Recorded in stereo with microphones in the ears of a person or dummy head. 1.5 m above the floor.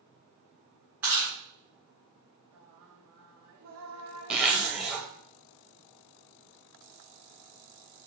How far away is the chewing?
About 1.4 m.